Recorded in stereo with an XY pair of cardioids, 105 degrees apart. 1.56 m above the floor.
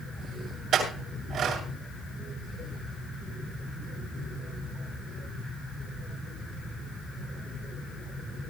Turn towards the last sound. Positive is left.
turn(degrees=-65)